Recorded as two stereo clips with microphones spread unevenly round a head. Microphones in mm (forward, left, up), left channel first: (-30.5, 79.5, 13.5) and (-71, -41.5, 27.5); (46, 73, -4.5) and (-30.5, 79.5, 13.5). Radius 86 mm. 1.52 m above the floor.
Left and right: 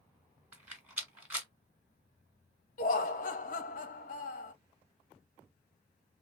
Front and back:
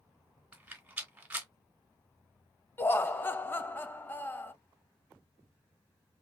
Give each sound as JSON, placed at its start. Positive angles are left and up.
{"t": 0.5, "sound": "a rattle", "azimuth_deg": -165, "distance_m": 1.4}
{"t": 2.8, "sound": "laughter", "azimuth_deg": 65, "distance_m": 0.6}